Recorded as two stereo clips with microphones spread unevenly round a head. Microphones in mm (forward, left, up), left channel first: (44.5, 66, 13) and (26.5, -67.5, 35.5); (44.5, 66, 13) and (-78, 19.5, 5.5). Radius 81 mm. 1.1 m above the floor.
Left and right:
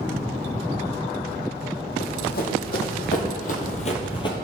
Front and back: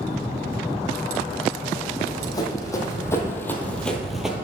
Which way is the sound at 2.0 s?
75° left.